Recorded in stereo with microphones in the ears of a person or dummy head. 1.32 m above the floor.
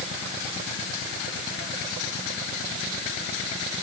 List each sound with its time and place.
Only background noise.